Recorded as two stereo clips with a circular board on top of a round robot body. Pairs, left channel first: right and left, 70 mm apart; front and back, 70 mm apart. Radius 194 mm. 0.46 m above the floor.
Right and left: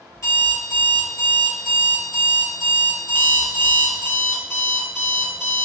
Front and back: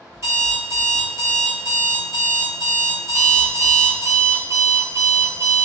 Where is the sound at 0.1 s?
135° right, 1.7 m.